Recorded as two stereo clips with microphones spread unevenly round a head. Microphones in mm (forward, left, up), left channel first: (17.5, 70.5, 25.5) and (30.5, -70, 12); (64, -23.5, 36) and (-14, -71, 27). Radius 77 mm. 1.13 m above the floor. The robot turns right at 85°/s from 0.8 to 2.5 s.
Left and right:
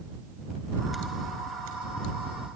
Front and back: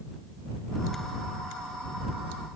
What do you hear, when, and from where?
Only background noise.